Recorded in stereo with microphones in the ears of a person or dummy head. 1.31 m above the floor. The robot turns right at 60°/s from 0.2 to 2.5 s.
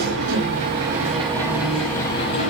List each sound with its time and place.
0.0 s an engine running: 90° right, 5 m; by 2.5 s 50° left, 5 m